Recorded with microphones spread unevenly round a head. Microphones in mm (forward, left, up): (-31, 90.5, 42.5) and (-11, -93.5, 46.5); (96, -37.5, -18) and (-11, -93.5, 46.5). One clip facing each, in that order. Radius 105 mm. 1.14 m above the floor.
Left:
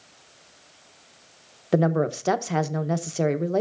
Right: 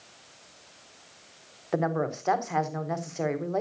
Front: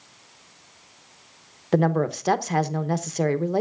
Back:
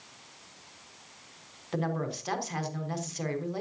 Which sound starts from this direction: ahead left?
A woman speaking, at 1.7 s.